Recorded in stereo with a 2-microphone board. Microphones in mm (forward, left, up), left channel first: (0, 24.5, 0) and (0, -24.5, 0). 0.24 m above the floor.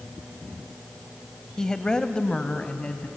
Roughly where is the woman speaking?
Centre.